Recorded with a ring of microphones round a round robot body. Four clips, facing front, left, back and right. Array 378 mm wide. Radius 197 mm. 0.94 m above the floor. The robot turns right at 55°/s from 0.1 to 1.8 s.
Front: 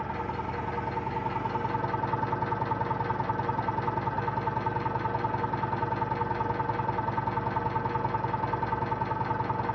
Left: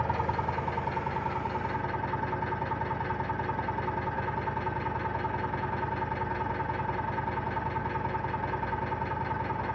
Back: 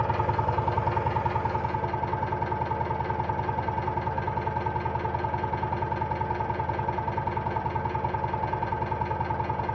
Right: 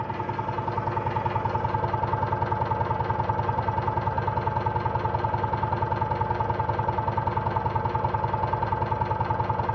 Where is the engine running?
Straight behind, 1.3 m; by 9.8 s 85° right, 1.3 m.